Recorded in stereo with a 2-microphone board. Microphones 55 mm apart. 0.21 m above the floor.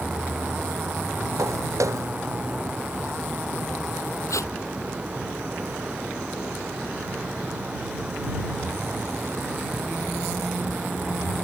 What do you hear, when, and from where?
1.4 s footsteps: 75° right (ahead or behind)
4.3 s tape being pulled: 75° left (ahead or behind)